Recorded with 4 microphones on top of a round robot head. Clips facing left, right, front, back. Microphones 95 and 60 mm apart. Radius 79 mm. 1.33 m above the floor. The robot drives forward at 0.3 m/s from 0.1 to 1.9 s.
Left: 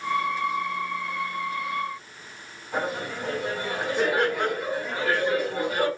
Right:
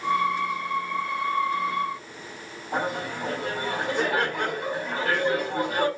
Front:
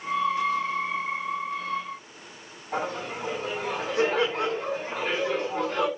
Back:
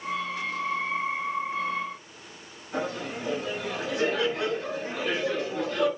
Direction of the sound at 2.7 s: 50° right.